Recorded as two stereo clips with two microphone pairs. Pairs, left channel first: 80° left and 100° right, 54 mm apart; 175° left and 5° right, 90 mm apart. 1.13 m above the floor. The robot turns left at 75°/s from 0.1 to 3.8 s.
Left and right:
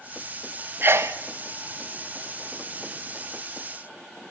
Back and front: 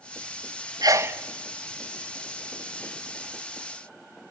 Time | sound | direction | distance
0.8 | a sneeze | 50° right | 1.2 m